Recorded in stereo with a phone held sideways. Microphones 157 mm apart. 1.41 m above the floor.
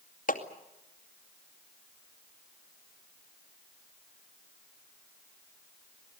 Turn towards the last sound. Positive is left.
turn(degrees=60)  # may be behind; listen again after turning